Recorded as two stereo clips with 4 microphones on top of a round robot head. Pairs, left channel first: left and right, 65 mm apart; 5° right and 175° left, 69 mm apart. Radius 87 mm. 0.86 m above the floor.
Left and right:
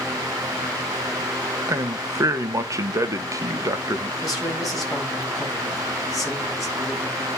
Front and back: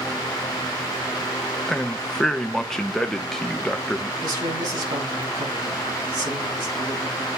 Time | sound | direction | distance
1.7 | a man speaking | 90° right | 1.3 m
4.2 | a man speaking | 170° left | 7.5 m